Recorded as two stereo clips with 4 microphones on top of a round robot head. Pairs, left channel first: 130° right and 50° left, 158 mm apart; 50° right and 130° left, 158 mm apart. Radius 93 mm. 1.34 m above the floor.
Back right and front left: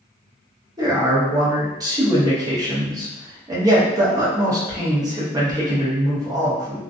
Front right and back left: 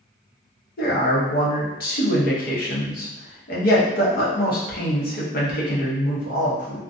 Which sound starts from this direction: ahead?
A man speaking, at 0.8 s.